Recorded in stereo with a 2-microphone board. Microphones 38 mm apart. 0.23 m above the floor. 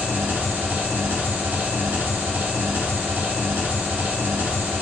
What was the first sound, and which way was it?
An engine running, 60° right (ahead or behind).